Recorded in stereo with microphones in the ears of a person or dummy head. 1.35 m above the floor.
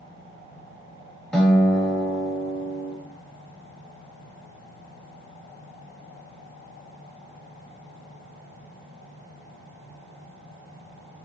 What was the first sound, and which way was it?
A guitar, 5° left (ahead or behind).